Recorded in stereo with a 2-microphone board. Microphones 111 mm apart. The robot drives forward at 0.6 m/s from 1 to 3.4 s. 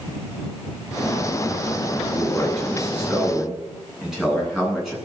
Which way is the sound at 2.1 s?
5° right (ahead or behind).